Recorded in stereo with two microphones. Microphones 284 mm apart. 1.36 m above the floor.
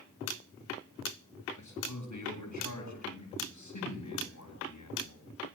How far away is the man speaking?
About 8.5 m.